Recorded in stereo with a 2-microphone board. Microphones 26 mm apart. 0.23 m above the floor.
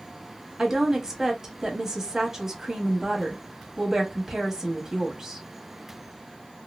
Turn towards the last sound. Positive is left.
turn(degrees=-15)  # may be behind; listen again after turning